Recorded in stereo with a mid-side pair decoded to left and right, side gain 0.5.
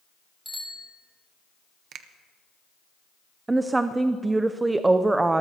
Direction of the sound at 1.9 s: 70° right.